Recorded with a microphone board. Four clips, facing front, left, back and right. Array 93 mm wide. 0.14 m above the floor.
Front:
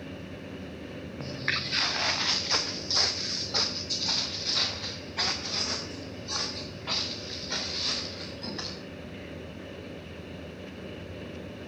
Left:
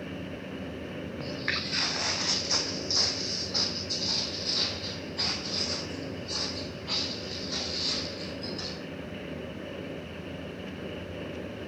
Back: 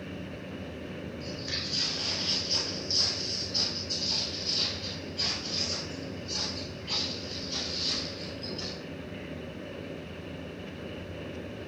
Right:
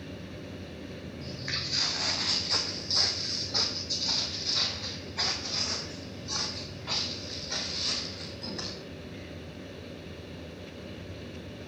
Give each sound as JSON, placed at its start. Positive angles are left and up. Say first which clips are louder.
{"t": 1.2, "sound": "footsteps", "louder": "left 6 dB, front 3 dB", "azimuth_deg": 40, "distance_m": 1.1}